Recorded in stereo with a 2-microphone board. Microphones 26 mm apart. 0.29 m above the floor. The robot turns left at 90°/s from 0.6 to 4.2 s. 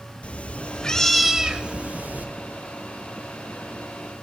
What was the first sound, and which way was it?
A cat meowing, 55° left.